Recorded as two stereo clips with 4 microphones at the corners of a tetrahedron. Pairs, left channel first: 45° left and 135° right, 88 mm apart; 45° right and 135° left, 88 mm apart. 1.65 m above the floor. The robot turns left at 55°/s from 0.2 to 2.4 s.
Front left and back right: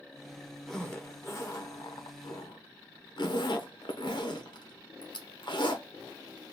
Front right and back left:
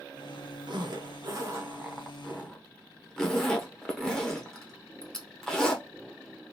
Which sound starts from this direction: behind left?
A zipper, at 0.7 s.